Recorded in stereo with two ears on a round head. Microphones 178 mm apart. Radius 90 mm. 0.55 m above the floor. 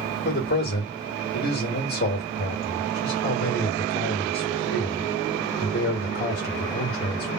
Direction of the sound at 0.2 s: 50° left (ahead or behind).